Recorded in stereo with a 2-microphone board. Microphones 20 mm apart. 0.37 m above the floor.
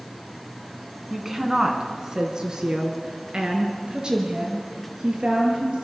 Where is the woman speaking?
20° right (ahead or behind), 3 m; by 5.8 s 55° right (ahead or behind), 7 m.